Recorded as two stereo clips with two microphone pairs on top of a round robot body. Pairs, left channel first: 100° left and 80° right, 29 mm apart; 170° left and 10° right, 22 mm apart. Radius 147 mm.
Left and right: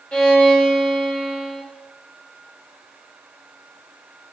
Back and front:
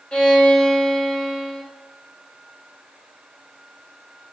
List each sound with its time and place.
0.1 s a violin: 145° left, 1.5 m